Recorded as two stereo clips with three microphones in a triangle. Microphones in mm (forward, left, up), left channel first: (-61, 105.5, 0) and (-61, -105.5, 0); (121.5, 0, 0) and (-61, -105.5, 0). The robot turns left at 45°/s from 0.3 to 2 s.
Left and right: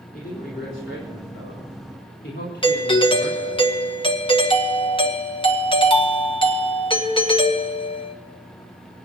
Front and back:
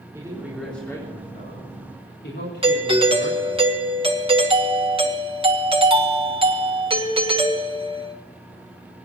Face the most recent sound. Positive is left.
turn(degrees=150)